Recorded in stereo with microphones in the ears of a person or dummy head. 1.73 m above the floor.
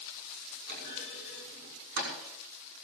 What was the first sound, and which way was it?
A clunk, 65° right (ahead or behind).